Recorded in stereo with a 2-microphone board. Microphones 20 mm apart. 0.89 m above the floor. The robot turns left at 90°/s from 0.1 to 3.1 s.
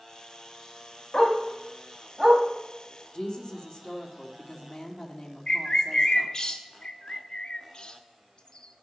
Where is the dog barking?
50° left (ahead or behind), 1.5 m; by 2.4 s 55° right (ahead or behind), 1.5 m.